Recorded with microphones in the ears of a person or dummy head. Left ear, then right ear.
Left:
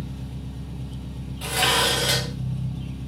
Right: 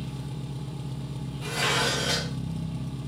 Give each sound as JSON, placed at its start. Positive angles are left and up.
{"t": 0.0, "sound": "an engine running", "side_deg": -60, "distance_m": 0.8}
{"t": 1.4, "sound": "dishes clattering", "side_deg": 20, "distance_m": 0.7}